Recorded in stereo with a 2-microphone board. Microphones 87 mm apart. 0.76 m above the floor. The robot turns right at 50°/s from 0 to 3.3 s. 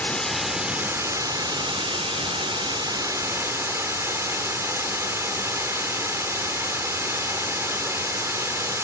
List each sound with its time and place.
0.0 s running water: 160° left, 1.1 m; by 8.8 s 35° right, 1.1 m